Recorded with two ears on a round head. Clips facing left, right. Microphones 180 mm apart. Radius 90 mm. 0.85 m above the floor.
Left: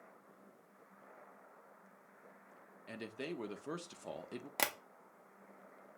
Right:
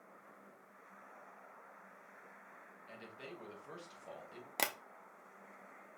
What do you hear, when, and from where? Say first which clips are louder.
2.9 s a man speaking: left 8 dB; 65° left (ahead or behind), 0.7 m
4.6 s tapping: even; centre (ahead or behind), 0.6 m